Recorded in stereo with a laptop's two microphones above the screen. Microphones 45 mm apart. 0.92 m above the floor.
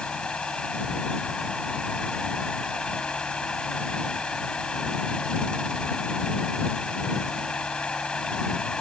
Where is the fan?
20° left (ahead or behind).